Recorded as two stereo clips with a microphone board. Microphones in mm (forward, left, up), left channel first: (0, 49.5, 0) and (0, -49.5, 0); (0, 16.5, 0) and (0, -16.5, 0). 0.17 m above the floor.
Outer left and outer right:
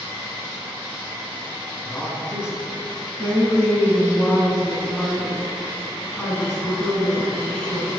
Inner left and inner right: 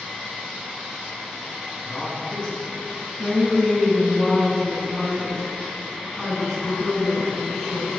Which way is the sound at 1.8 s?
30° left (ahead or behind).